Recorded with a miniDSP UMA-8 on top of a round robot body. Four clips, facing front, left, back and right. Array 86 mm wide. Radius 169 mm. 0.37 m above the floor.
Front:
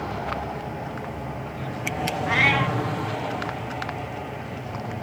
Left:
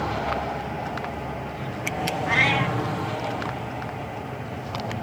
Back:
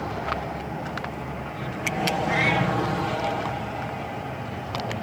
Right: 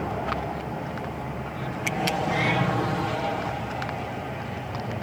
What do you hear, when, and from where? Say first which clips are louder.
2.3 s a cat meowing: left 5 dB, front 4 dB; 35° left, 1.3 m